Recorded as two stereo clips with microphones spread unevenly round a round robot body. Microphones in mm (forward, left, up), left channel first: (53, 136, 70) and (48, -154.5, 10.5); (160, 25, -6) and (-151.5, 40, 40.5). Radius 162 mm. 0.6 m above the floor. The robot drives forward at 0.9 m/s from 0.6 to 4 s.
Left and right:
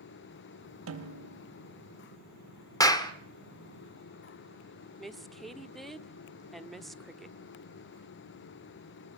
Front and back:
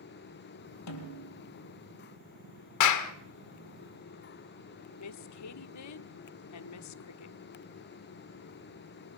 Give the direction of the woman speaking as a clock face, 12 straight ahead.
12 o'clock.